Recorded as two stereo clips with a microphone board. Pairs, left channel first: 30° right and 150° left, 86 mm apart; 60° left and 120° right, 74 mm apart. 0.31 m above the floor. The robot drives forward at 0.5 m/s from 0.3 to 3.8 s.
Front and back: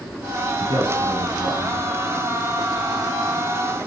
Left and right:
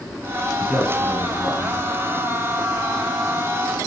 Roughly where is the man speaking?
Behind.